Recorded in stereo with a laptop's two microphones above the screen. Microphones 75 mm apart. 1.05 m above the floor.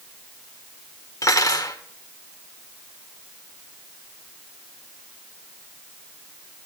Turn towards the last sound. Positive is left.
turn(degrees=50)  # may be behind; listen again after turning